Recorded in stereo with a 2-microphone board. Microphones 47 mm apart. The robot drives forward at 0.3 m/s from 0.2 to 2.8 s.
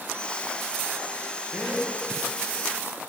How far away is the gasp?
About 5.5 m.